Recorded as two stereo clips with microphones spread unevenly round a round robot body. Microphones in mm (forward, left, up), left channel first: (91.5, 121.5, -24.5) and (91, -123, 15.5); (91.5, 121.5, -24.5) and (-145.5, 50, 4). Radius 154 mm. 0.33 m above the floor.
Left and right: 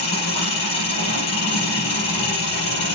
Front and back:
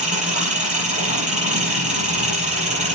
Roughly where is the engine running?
Behind left.